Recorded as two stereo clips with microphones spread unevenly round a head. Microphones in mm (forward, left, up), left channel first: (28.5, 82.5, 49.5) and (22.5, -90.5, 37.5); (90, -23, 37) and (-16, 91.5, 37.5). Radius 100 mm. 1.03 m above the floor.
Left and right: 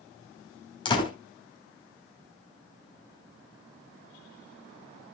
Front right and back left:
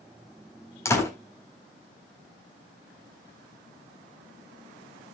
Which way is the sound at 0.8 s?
25° left.